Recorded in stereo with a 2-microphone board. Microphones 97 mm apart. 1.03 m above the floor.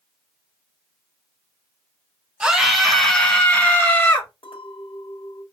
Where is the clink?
70° left (ahead or behind), 1.4 m.